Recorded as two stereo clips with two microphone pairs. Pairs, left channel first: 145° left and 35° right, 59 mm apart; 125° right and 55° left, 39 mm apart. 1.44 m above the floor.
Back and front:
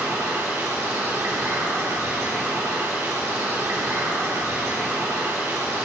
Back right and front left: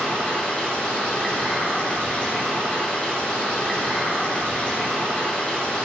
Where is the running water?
65° right, 2.5 m.